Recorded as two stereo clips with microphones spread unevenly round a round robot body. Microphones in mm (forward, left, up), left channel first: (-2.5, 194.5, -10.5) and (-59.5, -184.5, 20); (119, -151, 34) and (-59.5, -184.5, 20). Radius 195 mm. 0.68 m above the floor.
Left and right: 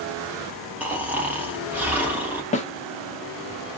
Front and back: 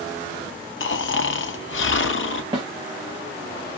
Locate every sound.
0.8 s snoring: 10° right, 0.6 m
2.5 s a snare drum: 140° left, 0.8 m